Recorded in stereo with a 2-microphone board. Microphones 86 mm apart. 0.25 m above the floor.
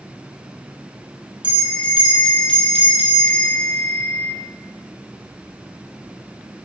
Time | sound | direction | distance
1.4 | a bell | 80° right | 2.5 m